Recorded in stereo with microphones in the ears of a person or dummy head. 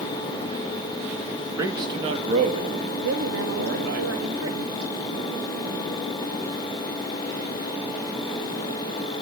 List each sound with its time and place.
1.6 s a man speaking: 20° right (ahead or behind), 2 m; by 4.0 s 60° right (ahead or behind), 4 m
3.0 s a woman speaking: 75° right (ahead or behind), 2.5 m